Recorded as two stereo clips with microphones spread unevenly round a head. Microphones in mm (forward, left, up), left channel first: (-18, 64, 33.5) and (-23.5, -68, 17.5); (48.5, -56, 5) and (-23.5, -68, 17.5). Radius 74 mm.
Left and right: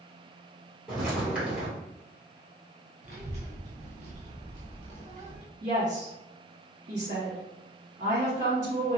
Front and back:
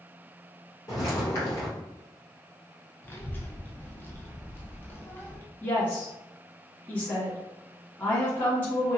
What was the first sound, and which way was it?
Footsteps, straight ahead.